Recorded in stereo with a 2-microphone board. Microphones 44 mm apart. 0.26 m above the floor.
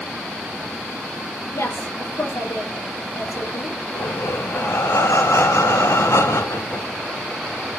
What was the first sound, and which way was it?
A woman speaking, 75° left (ahead or behind).